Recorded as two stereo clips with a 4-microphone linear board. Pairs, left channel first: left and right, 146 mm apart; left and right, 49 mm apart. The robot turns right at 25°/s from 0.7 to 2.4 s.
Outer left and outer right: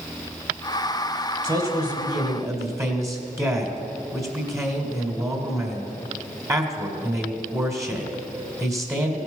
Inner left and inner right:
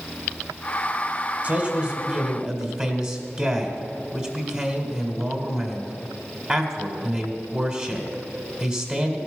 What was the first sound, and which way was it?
A man speaking, 30° right (ahead or behind).